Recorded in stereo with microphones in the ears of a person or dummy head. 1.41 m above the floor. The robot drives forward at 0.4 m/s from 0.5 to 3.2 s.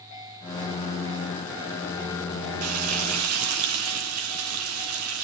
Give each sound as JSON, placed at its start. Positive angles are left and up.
{"t": 2.6, "sound": "frying", "side_deg": -85, "distance_m": 0.9}